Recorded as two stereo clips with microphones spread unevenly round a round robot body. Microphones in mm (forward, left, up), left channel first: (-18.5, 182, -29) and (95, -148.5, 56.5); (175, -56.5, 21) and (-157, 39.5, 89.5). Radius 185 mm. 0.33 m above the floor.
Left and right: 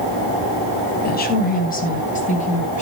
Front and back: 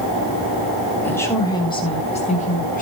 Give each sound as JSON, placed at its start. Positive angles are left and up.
{"t": 1.0, "sound": "a woman speaking", "azimuth_deg": 60, "distance_m": 3.0}